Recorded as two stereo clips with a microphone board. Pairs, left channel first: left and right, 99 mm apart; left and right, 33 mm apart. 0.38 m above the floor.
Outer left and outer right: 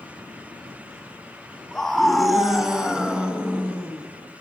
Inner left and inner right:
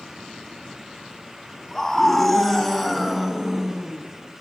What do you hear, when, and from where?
1.7 s a scream: 5° left (ahead or behind), 2.5 m; by 4.0 s 15° right (ahead or behind), 3 m